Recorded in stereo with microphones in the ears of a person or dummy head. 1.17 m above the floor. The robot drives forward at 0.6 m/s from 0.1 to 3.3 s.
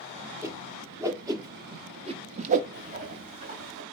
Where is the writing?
40° right (ahead or behind), 2.5 m; by 3.8 s 35° right (ahead or behind), 2.5 m.